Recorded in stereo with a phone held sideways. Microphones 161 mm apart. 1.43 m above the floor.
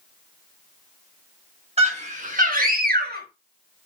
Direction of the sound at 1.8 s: 40° right (ahead or behind).